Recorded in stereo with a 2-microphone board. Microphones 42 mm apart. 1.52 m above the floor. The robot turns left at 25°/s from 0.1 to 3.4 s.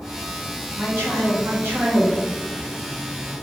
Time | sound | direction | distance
0.8 | a man speaking | 95° right | 1.4 m